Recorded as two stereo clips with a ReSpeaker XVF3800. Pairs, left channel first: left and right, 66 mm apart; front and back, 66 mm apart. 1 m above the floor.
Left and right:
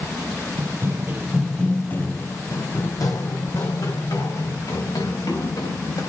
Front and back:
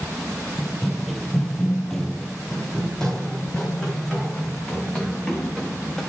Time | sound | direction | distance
0.6 | running footsteps | 95° right | 1.4 m